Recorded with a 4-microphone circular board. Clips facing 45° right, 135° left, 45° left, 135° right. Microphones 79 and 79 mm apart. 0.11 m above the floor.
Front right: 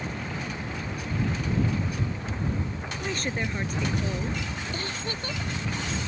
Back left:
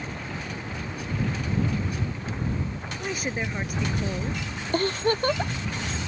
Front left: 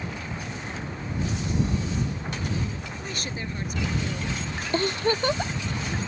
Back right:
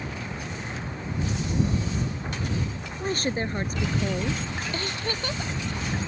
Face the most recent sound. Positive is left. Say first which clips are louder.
# back left 10 dB, front left 11 dB
turn(degrees=100)